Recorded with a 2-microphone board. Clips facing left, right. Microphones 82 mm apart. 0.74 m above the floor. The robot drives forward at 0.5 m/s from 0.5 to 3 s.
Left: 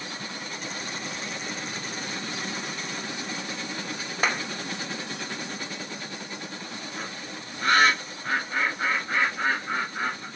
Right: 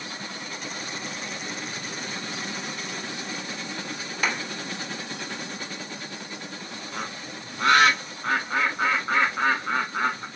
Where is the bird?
65° right (ahead or behind), 1.8 m.